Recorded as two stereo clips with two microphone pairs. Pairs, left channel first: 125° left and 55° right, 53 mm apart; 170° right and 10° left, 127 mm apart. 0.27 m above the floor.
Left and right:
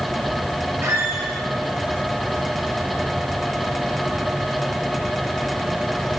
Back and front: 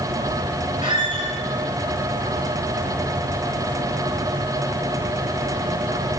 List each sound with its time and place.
0.8 s a squeak: 35° right, 2.5 m